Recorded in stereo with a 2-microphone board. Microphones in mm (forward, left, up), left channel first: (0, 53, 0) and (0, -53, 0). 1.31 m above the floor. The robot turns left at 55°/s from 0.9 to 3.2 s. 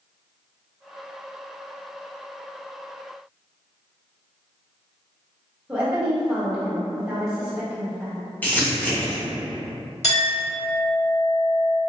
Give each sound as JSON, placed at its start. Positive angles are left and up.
{"t": 5.7, "sound": "a woman speaking", "side_deg": -5, "distance_m": 1.3}
{"t": 8.4, "sound": "crumpling", "side_deg": 15, "distance_m": 0.8}
{"t": 10.0, "sound": "a clink", "side_deg": 80, "distance_m": 1.9}